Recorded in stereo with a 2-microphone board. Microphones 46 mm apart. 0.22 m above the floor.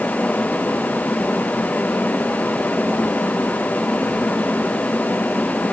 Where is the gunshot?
No gunshot in this recording.